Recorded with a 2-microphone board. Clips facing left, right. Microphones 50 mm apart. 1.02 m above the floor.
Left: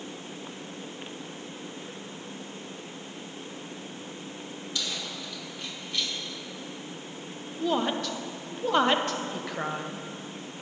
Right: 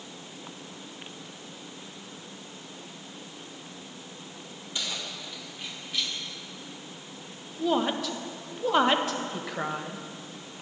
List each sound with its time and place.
4.8 s keys jangling: 25° right (ahead or behind), 1.9 m; by 6.1 s centre (ahead or behind), 1.5 m
7.6 s a woman speaking: centre (ahead or behind), 0.7 m